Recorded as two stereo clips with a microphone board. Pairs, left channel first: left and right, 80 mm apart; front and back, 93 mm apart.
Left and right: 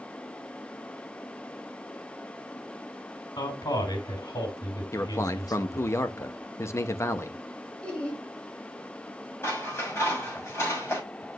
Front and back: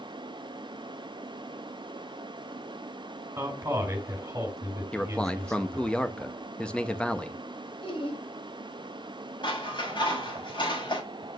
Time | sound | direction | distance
3.4 | a man speaking | 120° left | 4 m
4.9 | a man speaking | 70° left | 0.8 m
7.8 | laughter | 15° left | 3.5 m
9.4 | scissors | 30° left | 6.5 m